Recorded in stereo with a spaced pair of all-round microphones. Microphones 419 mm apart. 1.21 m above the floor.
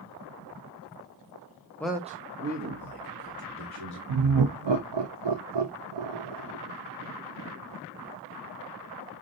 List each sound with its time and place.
1.8 s a man speaking: 5° left (ahead or behind), 0.6 m; by 4.0 s 60° right (ahead or behind), 1.8 m
4.1 s laughter: 75° right (ahead or behind), 0.5 m